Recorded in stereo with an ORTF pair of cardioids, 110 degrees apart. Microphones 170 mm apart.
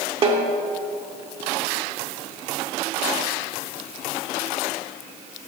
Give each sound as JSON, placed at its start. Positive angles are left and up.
{"t": 0.2, "sound": "a snare drum", "azimuth_deg": -35, "distance_m": 1.2}